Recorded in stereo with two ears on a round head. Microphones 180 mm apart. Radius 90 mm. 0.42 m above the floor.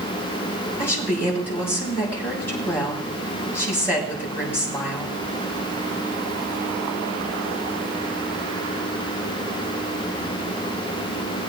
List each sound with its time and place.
0.8 s a woman speaking: 10° left (ahead or behind), 6 m